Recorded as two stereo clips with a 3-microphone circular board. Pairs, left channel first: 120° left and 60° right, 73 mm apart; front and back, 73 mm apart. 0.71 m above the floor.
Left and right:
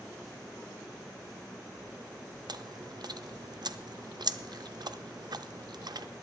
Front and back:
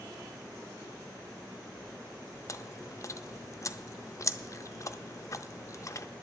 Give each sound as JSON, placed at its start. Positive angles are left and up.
{"t": 2.5, "sound": "chewing", "azimuth_deg": -45, "distance_m": 0.5}